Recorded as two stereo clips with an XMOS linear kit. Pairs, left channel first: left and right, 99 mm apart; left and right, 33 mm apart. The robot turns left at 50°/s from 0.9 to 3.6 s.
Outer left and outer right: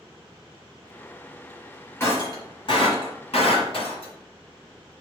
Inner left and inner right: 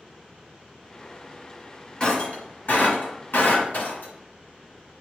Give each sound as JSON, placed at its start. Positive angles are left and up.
{"t": 2.0, "sound": "breaking glass", "side_deg": 20, "distance_m": 2.0}